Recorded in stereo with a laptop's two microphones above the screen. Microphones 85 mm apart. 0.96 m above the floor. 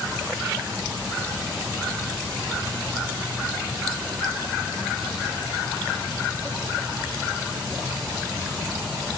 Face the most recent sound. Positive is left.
No sound to turn to.